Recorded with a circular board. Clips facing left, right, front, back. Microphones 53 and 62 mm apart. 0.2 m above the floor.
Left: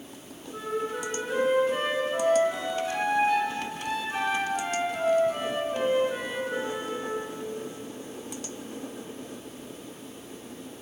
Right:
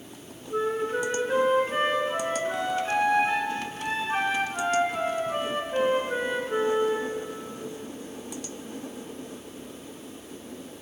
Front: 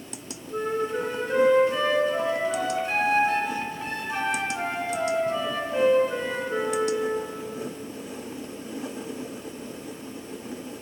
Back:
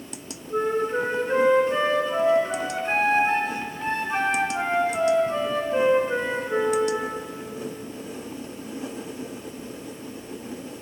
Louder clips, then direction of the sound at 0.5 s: Right 4 dB, back 3 dB; 130° right.